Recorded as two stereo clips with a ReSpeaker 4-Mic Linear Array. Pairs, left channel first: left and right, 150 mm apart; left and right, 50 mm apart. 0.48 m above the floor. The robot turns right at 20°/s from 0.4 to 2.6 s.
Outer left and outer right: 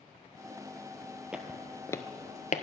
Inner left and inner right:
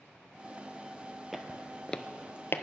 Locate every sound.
1.3 s footsteps: 5° right (ahead or behind), 0.8 m; by 2.6 s 60° left (ahead or behind), 0.7 m